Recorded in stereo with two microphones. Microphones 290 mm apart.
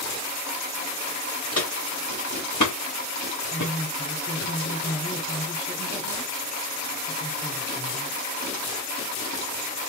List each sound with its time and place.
1.5 s footsteps: 55° left (ahead or behind), 1.5 m; by 4.5 s 65° left (ahead or behind), 1.9 m
3.5 s a woman speaking: 55° left (ahead or behind), 3 m